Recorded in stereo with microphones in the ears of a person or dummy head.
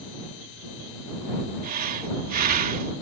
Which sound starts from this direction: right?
Breathing, at 1.6 s.